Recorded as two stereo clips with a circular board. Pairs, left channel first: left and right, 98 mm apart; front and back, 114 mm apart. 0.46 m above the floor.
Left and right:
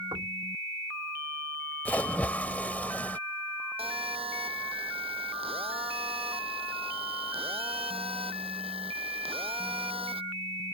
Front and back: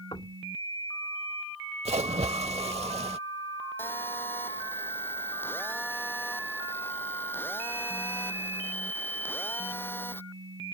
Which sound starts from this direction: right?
A phone buzzing, at 3.8 s.